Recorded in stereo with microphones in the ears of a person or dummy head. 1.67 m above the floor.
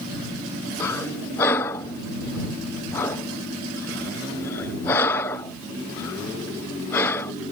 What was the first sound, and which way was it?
Breathing, 5° left (ahead or behind).